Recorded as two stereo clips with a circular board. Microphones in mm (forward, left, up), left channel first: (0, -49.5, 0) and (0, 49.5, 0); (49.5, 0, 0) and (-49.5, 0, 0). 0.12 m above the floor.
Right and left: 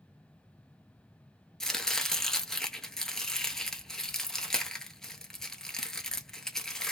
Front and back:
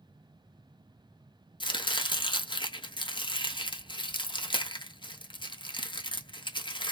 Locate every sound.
1.6 s chopping: 5° right, 0.7 m